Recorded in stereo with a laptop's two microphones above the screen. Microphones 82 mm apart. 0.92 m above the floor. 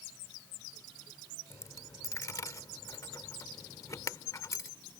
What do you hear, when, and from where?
1.5 s a dropped coin: 45° left (ahead or behind)